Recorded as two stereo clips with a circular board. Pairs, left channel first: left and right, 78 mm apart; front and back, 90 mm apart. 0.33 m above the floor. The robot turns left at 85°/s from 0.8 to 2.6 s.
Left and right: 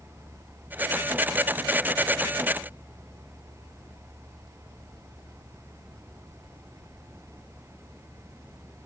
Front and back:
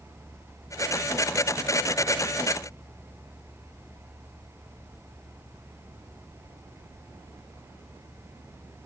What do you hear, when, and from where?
Only background noise.